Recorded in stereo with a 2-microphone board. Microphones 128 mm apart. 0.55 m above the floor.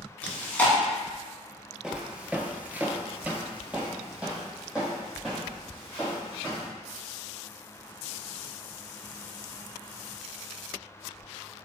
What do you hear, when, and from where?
0.2 s chewing: 10° left (ahead or behind), 0.9 m
1.8 s footsteps: 5° right (ahead or behind), 0.7 m